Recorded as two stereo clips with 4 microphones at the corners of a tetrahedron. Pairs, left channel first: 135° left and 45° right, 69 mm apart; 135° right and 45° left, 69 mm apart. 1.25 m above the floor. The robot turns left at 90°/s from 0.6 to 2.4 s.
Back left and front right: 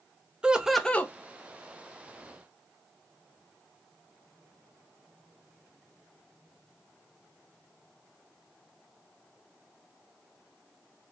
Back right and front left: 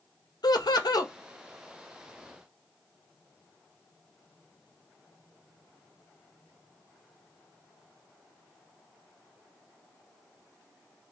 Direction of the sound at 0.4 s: 125° right.